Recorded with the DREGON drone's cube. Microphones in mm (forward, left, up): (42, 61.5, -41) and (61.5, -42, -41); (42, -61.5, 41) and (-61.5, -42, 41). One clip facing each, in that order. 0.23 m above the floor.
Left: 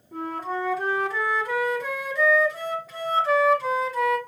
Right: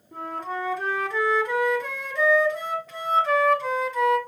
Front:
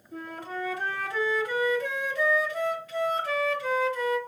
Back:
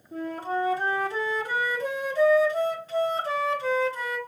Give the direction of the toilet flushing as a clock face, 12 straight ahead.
I don't hear a toilet flushing.